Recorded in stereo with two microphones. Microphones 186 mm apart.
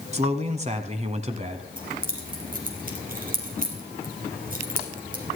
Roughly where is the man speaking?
Right.